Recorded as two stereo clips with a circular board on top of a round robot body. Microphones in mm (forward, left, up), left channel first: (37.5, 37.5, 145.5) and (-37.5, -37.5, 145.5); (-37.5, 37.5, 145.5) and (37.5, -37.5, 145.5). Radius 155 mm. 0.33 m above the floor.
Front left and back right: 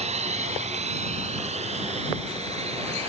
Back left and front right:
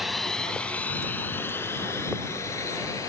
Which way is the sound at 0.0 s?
135° right.